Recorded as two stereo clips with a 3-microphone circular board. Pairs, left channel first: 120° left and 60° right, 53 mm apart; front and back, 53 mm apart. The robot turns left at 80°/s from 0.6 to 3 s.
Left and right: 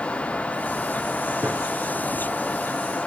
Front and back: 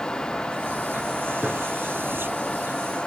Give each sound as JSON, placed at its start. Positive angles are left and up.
{"t": 1.4, "sound": "a gunshot", "azimuth_deg": -115, "distance_m": 2.0}